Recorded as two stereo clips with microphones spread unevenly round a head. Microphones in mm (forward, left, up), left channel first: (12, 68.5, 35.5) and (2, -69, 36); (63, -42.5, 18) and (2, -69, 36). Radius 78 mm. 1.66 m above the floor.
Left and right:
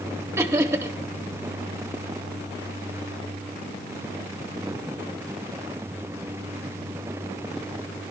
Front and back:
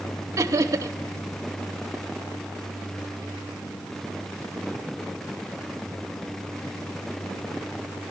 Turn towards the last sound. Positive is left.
turn(degrees=-165)